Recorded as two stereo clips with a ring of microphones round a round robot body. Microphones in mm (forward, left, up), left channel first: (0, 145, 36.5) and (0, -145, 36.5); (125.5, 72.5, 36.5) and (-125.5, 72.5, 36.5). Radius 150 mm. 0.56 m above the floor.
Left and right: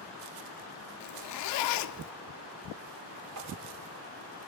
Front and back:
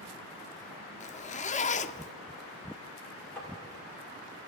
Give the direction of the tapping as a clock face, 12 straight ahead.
3 o'clock.